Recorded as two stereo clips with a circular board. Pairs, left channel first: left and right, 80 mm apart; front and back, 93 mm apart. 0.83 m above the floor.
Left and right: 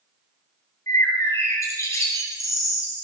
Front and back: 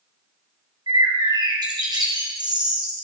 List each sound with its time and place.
0.9 s a bird: 140° left, 2.5 m